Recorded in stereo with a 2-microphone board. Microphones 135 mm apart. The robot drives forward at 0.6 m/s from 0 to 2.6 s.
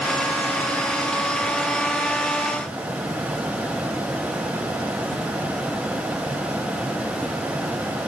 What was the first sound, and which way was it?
Only background noise.